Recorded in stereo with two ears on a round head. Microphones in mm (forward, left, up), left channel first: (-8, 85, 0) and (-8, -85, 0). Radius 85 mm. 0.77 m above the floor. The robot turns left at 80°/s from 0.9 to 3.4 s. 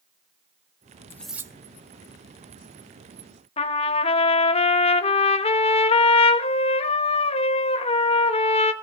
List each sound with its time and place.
1.1 s cutlery clinking: 15° left, 0.7 m; by 1.5 s 20° right, 0.7 m
3.6 s a trumpet: 30° left (ahead or behind), 1.0 m